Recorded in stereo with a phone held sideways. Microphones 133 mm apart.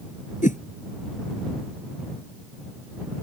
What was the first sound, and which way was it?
A whoosh, 75° left (ahead or behind).